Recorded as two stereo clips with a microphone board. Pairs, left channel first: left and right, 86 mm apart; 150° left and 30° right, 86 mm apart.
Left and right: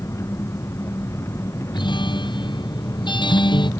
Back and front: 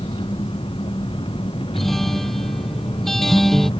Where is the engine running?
150° left.